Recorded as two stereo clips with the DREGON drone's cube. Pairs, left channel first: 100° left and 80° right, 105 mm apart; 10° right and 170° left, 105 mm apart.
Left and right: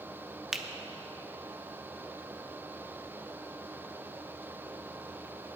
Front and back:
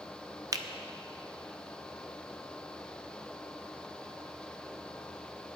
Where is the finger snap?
160° right, 0.6 m.